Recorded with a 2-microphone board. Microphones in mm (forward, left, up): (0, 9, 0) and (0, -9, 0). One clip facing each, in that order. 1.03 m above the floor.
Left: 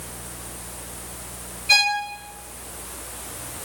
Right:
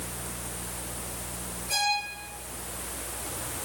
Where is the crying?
No crying in this recording.